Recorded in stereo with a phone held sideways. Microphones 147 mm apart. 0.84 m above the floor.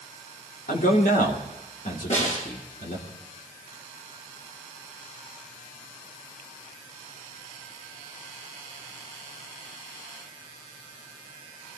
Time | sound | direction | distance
0.7 | a man speaking | 70° left (ahead or behind) | 3 m
2.1 | a snare drum | 55° left (ahead or behind) | 9.5 m